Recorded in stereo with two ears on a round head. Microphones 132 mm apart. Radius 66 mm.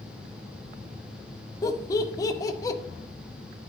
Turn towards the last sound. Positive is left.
turn(degrees=25)  # may be behind; listen again after turning